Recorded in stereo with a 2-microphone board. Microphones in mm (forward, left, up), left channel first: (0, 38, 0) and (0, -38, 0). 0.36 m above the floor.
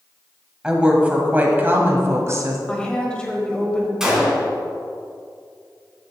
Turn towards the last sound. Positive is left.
turn(degrees=-5)  # may be behind; listen again after turning